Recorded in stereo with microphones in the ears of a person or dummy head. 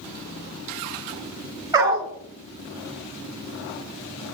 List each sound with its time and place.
1.7 s a dog barking: 20° right (ahead or behind), 1.6 m